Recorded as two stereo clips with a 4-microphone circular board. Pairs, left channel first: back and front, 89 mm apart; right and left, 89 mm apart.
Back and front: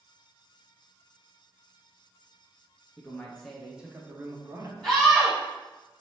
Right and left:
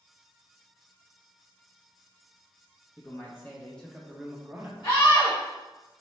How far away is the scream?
About 1.2 m.